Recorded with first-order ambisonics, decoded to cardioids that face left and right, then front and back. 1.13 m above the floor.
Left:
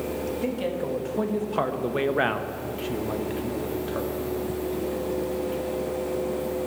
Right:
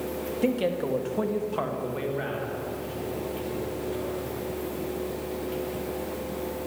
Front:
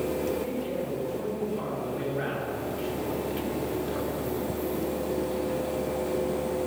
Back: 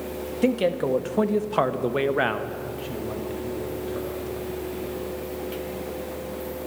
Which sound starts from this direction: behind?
A man speaking, at 0.4 s.